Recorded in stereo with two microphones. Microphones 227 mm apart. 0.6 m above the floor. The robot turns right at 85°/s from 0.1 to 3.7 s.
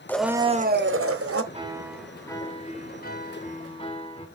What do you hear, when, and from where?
0.1 s a blender: 170° left, 0.6 m; by 1.4 s 75° right, 0.6 m
1.5 s a piano: 45° right, 1.0 m; by 4.3 s 140° left, 1.0 m